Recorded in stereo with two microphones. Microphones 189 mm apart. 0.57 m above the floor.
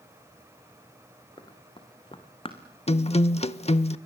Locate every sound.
1.4 s running footsteps: 25° left (ahead or behind), 3.5 m; by 2.6 s 30° left (ahead or behind), 2.5 m
2.9 s a guitar: 35° left (ahead or behind), 0.7 m